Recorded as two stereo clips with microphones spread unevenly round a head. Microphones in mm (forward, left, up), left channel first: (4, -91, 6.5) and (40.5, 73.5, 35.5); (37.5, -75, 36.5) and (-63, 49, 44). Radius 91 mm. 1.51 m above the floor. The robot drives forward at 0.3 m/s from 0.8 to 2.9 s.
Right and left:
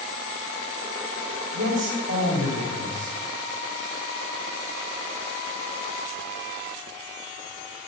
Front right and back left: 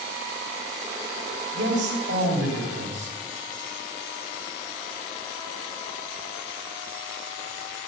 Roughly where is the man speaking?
Left.